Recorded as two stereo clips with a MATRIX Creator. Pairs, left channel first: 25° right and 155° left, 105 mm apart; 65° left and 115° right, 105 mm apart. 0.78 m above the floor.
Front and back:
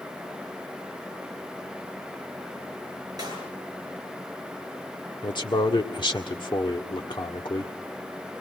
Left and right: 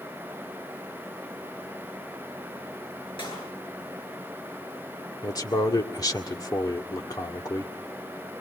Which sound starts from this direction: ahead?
A man speaking, at 5.2 s.